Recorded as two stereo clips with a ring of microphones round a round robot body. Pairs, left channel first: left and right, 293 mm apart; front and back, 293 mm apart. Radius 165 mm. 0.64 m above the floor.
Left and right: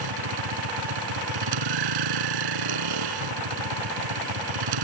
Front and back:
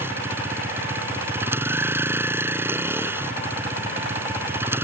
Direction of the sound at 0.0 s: 95° right.